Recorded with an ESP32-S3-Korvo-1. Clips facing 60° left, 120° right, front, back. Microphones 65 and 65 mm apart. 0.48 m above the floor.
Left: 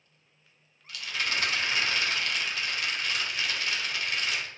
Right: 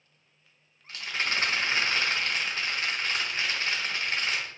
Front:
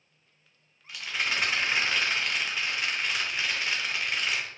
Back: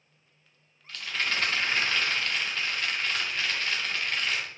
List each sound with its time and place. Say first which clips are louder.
0.9 s a rattle: right 1 dB, even; 75° right, 0.9 m